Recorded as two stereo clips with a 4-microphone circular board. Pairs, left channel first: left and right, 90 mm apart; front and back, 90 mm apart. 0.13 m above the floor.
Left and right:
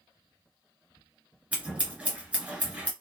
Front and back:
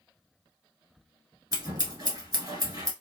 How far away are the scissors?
About 1.2 m.